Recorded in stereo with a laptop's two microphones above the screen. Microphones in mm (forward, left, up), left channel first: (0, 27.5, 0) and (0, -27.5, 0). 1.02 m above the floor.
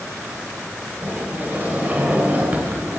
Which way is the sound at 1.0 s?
30° right (ahead or behind).